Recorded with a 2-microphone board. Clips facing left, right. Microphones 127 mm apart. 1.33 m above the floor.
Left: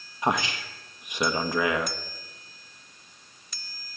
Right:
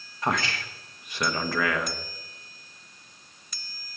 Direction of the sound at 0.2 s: 15° left (ahead or behind).